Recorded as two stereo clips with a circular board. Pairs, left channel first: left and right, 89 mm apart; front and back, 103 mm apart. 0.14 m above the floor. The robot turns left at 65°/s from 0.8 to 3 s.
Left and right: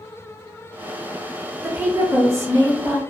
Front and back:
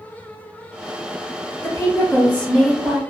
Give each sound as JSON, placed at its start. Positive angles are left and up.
{"t": 1.6, "sound": "a woman speaking", "azimuth_deg": -20, "distance_m": 1.2}